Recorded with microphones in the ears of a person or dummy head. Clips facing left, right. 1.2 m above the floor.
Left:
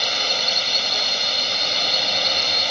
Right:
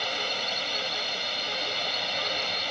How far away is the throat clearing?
I don't hear throat clearing.